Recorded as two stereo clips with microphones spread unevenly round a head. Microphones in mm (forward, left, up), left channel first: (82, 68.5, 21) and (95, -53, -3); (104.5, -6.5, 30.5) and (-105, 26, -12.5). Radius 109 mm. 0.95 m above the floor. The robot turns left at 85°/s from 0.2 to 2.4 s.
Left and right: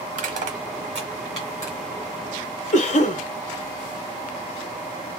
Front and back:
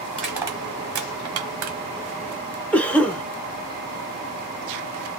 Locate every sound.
0.1 s crushing: 85° right, 1.1 m; by 1.8 s 145° left, 1.1 m
2.7 s a cough: 80° left, 0.9 m